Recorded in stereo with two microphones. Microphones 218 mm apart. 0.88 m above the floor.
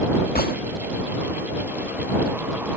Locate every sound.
0.3 s a gunshot: 45° left (ahead or behind)